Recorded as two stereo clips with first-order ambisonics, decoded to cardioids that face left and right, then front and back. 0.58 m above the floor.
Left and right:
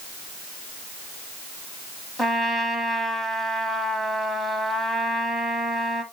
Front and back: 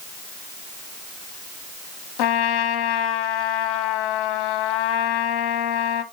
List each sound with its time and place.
2.2 s a trumpet: 5° left, 1.2 m